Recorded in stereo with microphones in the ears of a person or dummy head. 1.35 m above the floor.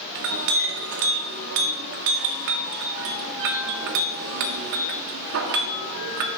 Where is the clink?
50° right (ahead or behind), 0.7 m.